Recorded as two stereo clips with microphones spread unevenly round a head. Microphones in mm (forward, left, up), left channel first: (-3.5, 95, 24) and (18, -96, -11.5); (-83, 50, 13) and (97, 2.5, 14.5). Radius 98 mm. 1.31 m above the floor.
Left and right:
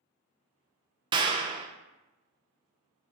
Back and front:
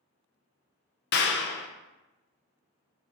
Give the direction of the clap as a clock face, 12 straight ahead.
5 o'clock.